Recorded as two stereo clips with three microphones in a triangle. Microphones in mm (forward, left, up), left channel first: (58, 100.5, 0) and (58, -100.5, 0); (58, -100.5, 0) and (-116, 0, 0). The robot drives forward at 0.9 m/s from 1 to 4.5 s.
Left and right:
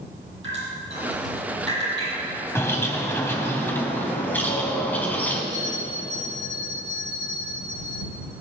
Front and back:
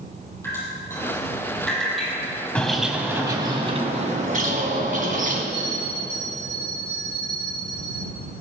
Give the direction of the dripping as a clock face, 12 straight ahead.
4 o'clock.